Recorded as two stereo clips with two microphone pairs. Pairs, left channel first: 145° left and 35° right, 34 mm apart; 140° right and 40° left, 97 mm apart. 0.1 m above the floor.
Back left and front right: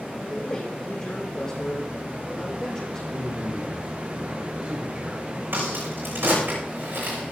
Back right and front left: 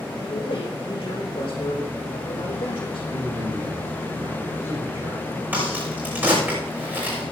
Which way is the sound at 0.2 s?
150° right.